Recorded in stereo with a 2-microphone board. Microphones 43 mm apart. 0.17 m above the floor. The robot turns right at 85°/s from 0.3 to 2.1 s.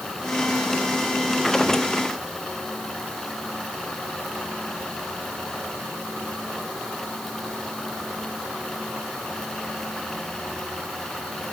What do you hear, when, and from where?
Only background noise.